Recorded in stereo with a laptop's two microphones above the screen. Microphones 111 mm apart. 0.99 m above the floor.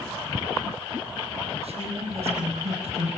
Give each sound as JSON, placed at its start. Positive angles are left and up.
{"t": 1.6, "sound": "a woman speaking", "side_deg": -65, "distance_m": 6.5}